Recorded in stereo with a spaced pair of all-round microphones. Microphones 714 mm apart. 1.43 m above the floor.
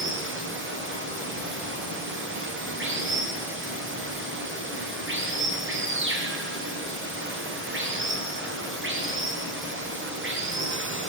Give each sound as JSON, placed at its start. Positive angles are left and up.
{"t": 0.0, "sound": "running water", "side_deg": -15, "distance_m": 0.9}